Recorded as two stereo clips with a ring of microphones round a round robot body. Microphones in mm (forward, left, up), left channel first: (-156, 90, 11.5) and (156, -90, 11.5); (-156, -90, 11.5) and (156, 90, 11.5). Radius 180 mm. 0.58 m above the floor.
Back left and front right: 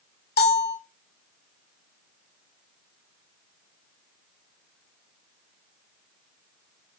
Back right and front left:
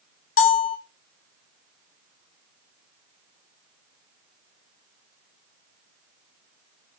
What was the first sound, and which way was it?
A bell, 165° right.